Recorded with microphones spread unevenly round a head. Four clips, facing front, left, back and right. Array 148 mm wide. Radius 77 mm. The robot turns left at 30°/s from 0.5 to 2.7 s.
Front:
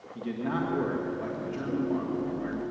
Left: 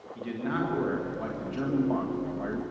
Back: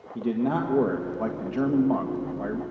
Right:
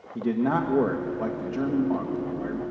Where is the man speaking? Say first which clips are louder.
Right 7 dB, back 6 dB; 130° right, 1.6 m; by 2.6 s 170° left, 1.6 m.